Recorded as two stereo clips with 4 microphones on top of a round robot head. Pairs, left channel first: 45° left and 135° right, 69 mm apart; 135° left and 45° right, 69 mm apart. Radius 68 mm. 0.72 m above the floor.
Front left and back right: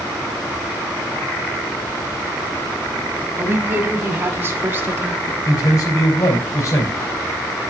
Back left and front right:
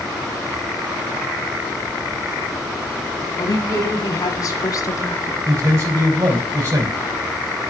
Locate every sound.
3.4 s a woman speaking: 170° left, 2.5 m; by 5.3 s 165° left, 1.4 m
5.5 s a man speaking: straight ahead, 4.5 m